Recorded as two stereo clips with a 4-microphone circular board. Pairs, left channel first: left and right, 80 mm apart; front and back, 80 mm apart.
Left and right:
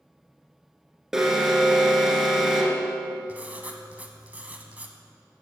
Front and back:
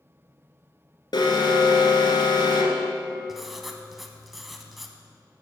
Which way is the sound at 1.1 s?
5° right.